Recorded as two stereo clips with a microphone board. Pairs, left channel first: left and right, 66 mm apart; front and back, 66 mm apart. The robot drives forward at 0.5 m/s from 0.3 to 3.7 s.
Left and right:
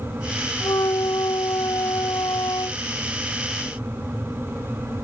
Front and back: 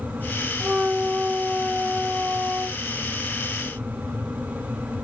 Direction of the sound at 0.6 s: 100° left.